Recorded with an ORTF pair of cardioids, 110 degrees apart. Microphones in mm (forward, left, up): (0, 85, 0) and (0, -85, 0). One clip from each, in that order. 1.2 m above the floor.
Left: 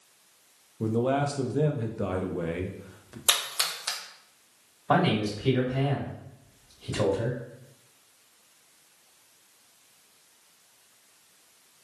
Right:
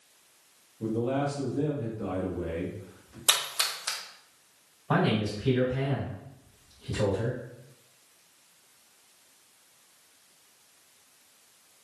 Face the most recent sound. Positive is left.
turn(degrees=50)